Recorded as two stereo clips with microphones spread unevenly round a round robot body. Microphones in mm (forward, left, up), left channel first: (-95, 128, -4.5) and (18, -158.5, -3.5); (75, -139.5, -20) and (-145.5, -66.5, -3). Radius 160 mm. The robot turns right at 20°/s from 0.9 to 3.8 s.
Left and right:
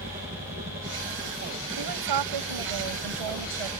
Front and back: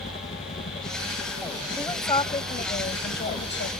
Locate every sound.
0.0 s a helicopter: 20° right; by 3.8 s 35° left
1.8 s a woman speaking: 95° right; by 3.7 s 60° right